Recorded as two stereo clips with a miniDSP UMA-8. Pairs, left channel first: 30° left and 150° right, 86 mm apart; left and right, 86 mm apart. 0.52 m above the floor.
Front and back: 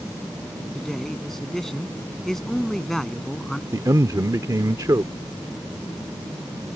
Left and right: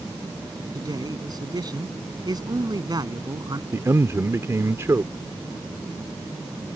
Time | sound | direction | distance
0.8 | a man speaking | 55° right | ?
3.7 | a man speaking | 130° right | ?